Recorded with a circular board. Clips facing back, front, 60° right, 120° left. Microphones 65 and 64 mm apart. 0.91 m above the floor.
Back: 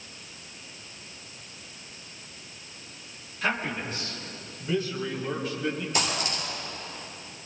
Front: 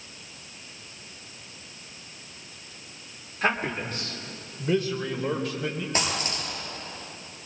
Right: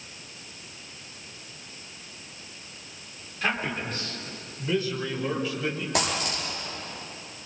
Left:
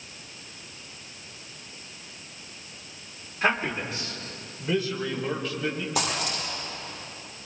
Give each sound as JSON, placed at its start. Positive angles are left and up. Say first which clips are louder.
{"t": 3.4, "sound": "a man speaking", "louder": "front 3 dB, left 3 dB", "azimuth_deg": 50, "distance_m": 3.0}
{"t": 5.9, "sound": "a dropped coin", "louder": "even, right 1 dB", "azimuth_deg": -50, "distance_m": 8.5}